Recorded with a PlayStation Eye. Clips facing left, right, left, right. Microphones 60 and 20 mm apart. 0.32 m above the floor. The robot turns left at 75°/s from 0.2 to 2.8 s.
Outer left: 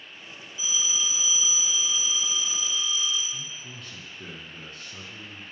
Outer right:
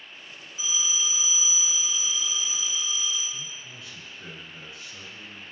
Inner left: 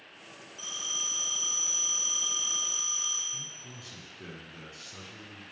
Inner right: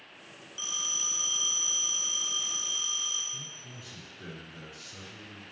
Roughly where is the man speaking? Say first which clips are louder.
Outer left 1 dB, inner left 1 dB; left.